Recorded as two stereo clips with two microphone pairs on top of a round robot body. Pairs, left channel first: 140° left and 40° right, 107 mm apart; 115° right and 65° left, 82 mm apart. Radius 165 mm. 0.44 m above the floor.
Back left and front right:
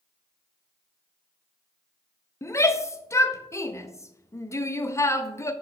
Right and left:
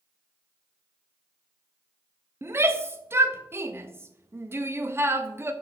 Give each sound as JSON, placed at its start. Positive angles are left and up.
{"t": 2.4, "sound": "a shout", "azimuth_deg": 130, "distance_m": 1.0}